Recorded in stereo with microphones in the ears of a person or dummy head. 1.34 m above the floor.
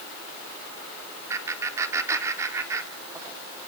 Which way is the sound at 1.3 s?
20° right (ahead or behind).